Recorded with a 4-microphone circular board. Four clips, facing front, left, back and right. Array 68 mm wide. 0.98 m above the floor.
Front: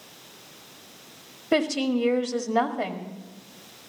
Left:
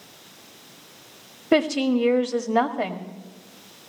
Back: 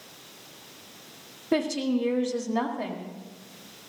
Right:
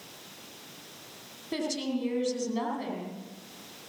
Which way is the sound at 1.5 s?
75° left.